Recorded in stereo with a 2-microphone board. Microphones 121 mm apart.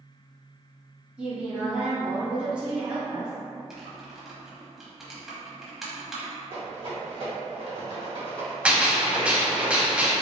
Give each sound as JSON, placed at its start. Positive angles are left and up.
{"t": 1.2, "sound": "a woman speaking", "side_deg": -10, "distance_m": 1.4}
{"t": 3.7, "sound": "typing on a keyboard", "side_deg": -5, "distance_m": 0.8}
{"t": 6.5, "sound": "a rattle", "side_deg": -50, "distance_m": 1.6}
{"t": 8.7, "sound": "a gunshot", "side_deg": -10, "distance_m": 0.6}